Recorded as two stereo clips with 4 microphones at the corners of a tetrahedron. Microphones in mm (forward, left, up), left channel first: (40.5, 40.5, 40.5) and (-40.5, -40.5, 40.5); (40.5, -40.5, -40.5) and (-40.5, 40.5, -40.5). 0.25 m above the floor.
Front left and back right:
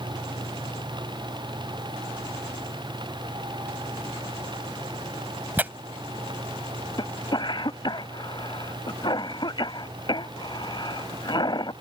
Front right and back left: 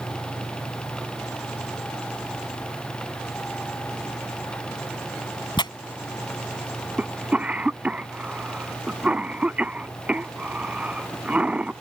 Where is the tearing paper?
65° right.